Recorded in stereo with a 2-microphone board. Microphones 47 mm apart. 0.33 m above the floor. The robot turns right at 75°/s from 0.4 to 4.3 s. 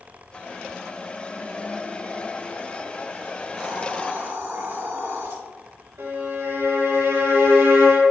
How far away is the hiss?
About 3 m.